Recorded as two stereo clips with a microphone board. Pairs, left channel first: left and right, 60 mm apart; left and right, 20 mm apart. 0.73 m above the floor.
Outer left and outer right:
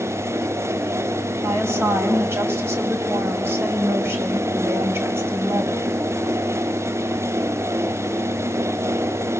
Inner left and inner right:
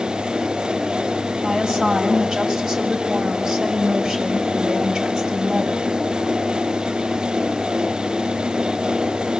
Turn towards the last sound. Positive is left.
turn(degrees=-40)  # may be behind; listen again after turning